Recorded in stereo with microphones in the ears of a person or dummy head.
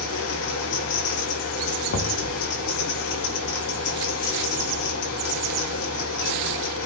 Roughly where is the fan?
Left.